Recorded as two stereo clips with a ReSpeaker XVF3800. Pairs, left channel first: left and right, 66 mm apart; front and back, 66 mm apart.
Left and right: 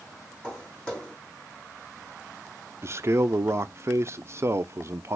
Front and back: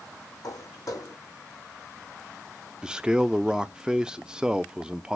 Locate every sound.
0.4 s footsteps: 20° left, 3.5 m
2.8 s a man speaking: 105° right, 0.5 m